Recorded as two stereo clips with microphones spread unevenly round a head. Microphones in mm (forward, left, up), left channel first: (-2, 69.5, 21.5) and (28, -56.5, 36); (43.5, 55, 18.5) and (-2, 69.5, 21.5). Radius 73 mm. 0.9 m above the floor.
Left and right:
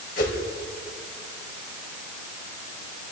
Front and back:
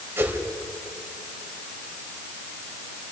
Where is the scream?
I don't hear a scream.